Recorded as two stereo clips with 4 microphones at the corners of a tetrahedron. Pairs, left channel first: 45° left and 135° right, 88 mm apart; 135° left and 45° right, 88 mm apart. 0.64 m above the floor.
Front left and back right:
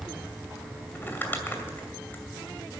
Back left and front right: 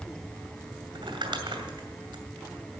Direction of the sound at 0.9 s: 20° right.